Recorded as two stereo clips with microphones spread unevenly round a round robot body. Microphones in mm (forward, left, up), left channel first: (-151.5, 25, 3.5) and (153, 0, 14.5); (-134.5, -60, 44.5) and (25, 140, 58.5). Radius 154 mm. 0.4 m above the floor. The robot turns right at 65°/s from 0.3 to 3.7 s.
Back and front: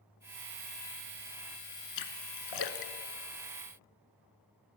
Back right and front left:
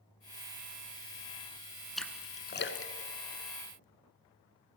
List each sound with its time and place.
2.0 s a splash: 140° left, 1.8 m; by 3.8 s 105° right, 1.8 m